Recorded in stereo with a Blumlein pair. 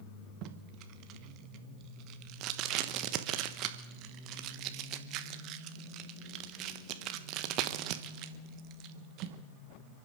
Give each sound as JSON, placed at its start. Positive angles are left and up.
{"t": 0.4, "sound": "tape being pulled", "azimuth_deg": -40, "distance_m": 1.2}